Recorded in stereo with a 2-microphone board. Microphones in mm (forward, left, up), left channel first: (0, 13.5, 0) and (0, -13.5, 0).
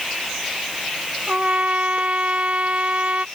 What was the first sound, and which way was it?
A trumpet, 55° right (ahead or behind).